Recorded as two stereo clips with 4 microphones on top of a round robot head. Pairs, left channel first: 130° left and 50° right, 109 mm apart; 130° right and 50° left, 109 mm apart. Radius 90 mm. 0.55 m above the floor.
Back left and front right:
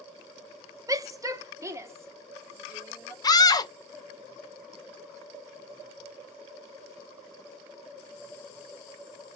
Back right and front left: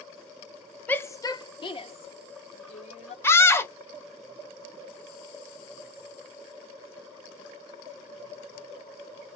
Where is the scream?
170° left, 1.0 m.